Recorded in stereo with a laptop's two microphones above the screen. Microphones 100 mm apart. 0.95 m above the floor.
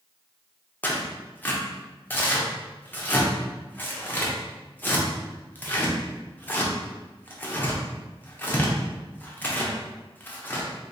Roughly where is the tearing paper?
Centre.